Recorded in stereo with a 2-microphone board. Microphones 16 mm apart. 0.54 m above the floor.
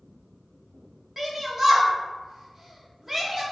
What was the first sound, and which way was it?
A shout, 25° right (ahead or behind).